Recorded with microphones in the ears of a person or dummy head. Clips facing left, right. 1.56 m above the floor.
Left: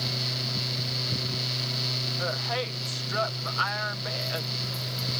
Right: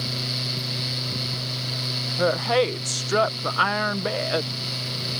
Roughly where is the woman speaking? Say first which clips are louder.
Right 12 dB; right.